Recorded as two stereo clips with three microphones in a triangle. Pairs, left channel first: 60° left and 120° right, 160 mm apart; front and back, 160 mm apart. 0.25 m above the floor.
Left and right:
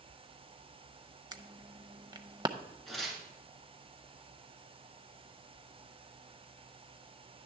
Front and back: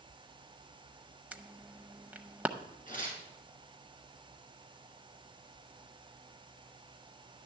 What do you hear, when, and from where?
1.3 s an alarm: 110° right, 0.6 m
2.9 s tearing paper: 30° right, 2.5 m